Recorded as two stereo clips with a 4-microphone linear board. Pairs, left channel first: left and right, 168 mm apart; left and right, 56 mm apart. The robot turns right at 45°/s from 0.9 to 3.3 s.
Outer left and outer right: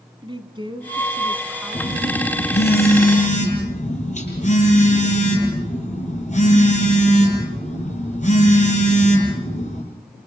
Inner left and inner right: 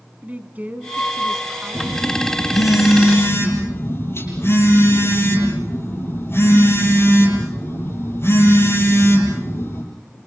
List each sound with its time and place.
0.2 s a woman speaking: 35° right, 1.9 m; by 2.7 s 50° left, 1.9 m
1.7 s a phone buzzing: 60° left, 8 m; by 9.8 s 130° left, 8 m